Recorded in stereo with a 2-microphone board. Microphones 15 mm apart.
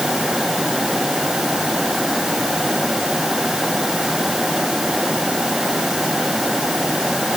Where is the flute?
No flute in this recording.